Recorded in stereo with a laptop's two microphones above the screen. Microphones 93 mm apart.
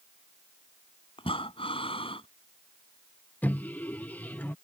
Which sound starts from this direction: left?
Breathing, at 1.2 s.